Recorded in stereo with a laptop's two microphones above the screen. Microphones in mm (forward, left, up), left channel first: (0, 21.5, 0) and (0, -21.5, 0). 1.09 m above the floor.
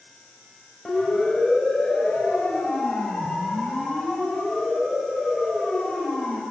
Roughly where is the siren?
Centre.